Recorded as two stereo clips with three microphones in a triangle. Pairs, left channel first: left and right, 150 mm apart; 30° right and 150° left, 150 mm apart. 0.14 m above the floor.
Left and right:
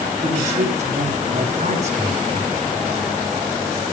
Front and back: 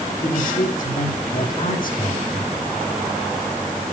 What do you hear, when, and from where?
0.2 s a man speaking: 50° right, 6 m